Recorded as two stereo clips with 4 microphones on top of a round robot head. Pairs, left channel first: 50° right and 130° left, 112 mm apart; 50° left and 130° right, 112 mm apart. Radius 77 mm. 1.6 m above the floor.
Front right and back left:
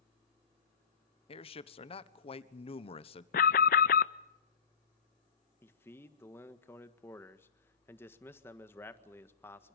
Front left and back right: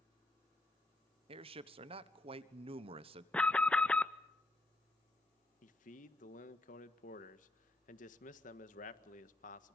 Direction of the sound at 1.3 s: 90° right.